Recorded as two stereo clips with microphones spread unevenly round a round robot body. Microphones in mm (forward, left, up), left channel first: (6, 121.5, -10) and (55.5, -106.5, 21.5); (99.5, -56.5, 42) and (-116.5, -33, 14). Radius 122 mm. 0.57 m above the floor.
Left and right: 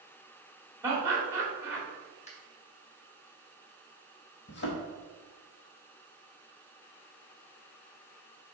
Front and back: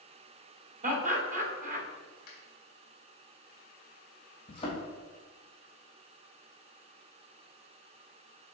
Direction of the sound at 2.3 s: 45° left.